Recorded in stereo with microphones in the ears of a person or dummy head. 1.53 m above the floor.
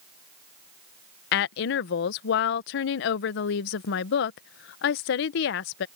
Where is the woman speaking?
55° left (ahead or behind).